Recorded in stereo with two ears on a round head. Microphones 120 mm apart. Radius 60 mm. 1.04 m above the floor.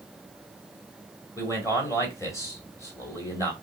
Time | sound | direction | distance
1.4 | a man speaking | 20° left (ahead or behind) | 2.5 m